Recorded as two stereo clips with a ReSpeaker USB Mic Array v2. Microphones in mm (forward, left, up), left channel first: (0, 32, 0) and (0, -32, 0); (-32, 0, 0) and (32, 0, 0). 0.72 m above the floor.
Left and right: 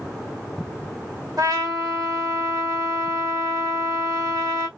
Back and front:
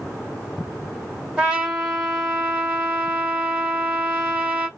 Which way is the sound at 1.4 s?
70° right.